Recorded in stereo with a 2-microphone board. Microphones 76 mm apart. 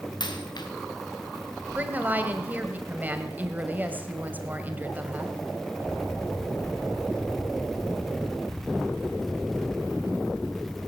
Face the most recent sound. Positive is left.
turn(degrees=-20)  # may be behind; listen again after turning